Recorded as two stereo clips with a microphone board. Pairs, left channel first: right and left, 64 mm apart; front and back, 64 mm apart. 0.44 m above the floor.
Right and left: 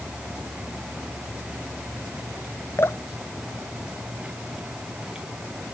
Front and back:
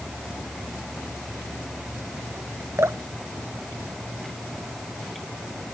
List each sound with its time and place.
2.8 s dripping: 135° right